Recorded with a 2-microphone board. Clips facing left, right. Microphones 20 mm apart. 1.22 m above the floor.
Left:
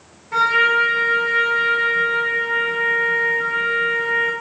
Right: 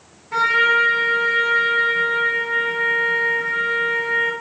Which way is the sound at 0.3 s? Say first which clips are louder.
Even; 25° right (ahead or behind).